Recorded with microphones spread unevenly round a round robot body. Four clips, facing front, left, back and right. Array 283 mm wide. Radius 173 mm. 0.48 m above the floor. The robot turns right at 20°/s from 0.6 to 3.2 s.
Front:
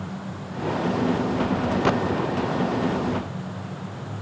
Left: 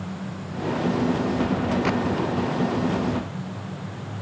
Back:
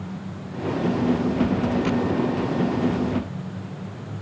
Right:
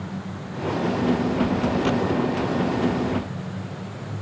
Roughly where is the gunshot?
Ahead.